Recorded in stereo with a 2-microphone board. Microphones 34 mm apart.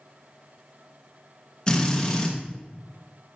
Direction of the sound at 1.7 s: 25° left (ahead or behind).